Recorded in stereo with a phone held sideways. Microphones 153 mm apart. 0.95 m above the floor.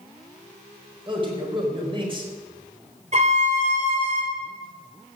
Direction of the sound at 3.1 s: 50° right (ahead or behind).